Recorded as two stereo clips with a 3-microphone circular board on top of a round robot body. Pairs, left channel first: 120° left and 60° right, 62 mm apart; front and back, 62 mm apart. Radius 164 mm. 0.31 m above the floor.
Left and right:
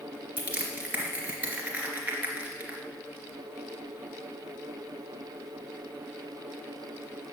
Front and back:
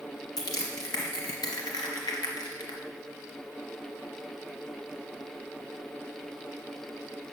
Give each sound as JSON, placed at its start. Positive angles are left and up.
{"t": 0.4, "sound": "crushing", "azimuth_deg": 5, "distance_m": 2.5}